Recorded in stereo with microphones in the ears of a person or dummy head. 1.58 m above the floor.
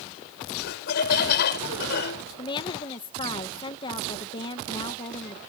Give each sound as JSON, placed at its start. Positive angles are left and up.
{"t": 0.6, "sound": "laughter", "side_deg": 60}
{"t": 2.4, "sound": "a woman speaking", "side_deg": 25}